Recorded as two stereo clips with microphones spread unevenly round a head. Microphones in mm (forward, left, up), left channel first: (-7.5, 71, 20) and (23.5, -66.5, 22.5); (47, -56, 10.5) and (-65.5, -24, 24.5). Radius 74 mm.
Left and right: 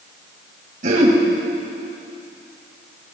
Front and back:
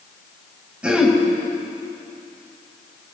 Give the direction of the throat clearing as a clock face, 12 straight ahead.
4 o'clock.